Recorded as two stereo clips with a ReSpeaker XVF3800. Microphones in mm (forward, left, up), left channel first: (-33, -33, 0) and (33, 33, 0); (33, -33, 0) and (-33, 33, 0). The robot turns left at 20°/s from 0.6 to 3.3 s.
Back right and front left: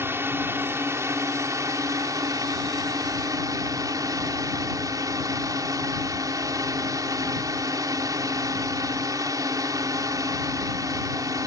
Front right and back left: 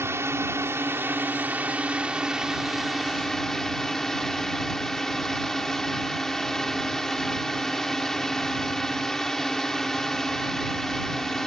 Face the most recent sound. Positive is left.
turn(degrees=40)